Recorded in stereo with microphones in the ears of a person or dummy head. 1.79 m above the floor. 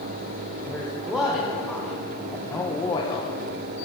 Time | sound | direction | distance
0.7 | a woman speaking | centre (ahead or behind) | 2.0 m